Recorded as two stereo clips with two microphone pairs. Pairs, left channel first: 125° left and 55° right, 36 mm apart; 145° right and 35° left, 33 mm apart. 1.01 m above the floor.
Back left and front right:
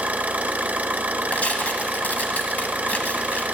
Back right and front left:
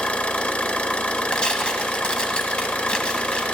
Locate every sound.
0.0 s an engine running: 100° right, 0.9 m
1.3 s tearing paper: 160° left, 1.6 m